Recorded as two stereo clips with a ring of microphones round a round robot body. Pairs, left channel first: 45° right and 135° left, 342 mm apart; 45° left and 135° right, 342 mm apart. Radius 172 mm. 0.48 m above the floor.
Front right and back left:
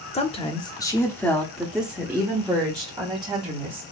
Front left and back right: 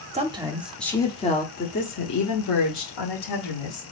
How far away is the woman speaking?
About 0.9 m.